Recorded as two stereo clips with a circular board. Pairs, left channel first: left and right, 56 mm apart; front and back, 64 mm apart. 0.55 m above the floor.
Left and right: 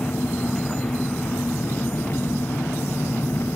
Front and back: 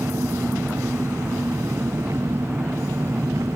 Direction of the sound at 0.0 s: 140° left.